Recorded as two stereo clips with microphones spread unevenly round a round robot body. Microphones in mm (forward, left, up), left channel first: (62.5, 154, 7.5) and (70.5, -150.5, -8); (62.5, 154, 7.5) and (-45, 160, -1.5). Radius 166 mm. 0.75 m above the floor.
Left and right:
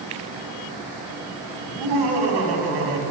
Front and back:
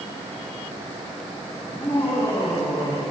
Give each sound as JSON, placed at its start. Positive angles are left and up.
{"t": 1.6, "sound": "laughter", "azimuth_deg": -80, "distance_m": 5.0}